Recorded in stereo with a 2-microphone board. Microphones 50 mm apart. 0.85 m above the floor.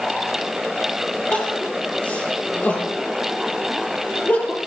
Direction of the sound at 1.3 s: 30° left (ahead or behind).